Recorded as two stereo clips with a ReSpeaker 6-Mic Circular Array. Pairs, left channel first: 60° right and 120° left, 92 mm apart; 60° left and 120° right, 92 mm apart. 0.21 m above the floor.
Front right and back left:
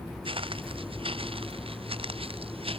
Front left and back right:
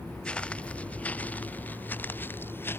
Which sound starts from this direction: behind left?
Footsteps, at 0.2 s.